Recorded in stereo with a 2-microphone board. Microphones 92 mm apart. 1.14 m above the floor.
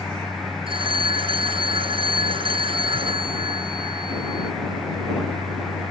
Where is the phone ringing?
65° right (ahead or behind).